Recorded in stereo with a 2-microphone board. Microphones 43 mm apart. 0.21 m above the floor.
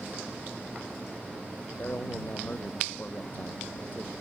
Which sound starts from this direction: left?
A man speaking, at 1.8 s.